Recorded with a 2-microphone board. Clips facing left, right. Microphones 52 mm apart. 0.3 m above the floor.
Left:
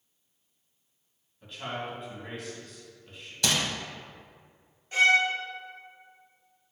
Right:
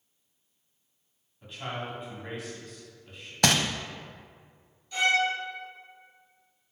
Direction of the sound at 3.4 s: 60° right (ahead or behind).